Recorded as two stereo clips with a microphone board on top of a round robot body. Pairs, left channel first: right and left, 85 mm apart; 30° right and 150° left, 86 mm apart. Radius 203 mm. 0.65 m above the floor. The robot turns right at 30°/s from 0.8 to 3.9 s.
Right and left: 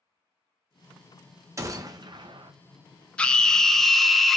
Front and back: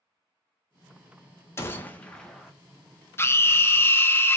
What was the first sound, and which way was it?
A gunshot, 35° left.